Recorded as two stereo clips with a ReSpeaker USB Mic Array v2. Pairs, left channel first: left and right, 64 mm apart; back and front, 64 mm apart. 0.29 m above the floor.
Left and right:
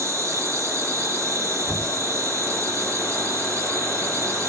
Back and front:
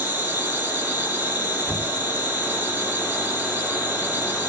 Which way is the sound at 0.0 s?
60° right.